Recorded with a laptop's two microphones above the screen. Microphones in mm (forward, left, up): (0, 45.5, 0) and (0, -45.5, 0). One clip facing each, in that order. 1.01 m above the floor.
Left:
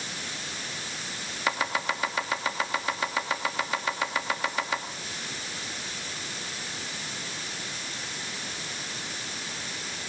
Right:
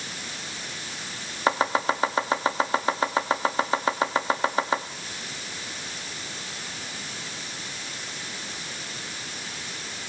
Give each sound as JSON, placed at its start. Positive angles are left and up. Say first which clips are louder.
{"t": 1.5, "sound": "chopping", "louder": "right 6 dB", "side_deg": -35, "distance_m": 1.0}